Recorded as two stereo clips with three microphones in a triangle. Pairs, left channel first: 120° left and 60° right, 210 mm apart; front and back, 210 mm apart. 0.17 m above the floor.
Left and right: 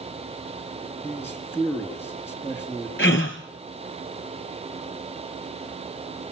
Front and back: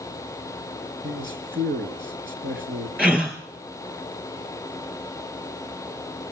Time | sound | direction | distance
1.0 | a man speaking | 160° right | 4 m
3.0 | a gasp | 95° left | 3 m